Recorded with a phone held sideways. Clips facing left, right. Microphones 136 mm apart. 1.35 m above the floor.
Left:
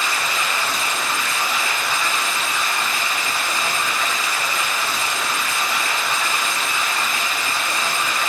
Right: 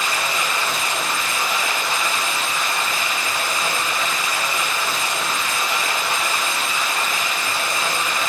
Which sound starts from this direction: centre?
Running water, at 0.0 s.